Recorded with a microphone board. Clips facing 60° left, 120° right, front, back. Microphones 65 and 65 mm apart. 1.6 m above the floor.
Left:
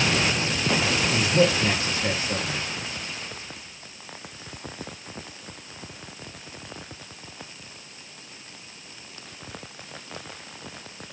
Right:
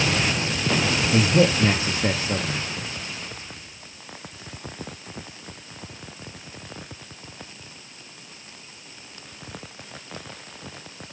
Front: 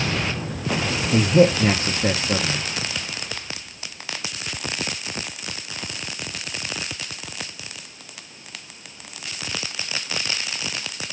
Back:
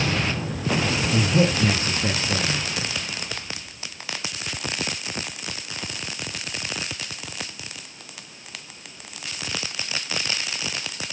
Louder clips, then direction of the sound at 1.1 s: Right 3 dB, front 7 dB; 55° right.